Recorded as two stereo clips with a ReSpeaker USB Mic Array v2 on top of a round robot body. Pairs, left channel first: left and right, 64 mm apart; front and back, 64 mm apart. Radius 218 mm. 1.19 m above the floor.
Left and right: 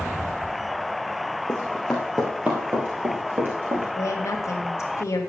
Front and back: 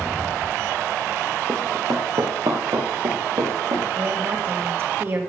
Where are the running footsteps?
125° left, 1.3 m; by 3.9 s 140° right, 3.5 m.